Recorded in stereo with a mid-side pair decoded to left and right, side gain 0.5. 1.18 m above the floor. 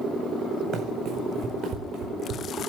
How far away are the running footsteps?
About 4.5 m.